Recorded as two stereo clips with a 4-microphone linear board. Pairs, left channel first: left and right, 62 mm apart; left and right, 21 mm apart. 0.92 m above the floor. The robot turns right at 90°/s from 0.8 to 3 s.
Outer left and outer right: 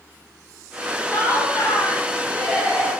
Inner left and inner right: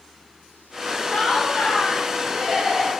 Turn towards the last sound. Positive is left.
turn(degrees=-130)